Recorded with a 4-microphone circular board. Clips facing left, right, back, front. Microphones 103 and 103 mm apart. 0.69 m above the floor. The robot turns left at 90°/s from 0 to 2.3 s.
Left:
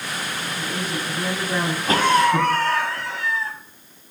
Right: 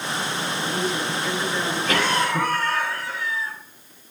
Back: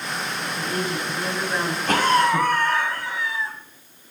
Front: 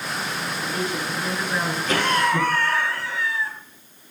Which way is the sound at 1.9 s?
145° left.